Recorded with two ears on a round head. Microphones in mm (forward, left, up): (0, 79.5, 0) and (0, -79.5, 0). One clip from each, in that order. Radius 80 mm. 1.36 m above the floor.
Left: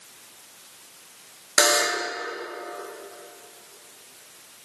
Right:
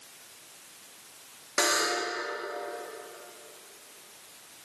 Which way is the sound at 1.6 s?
35° left (ahead or behind).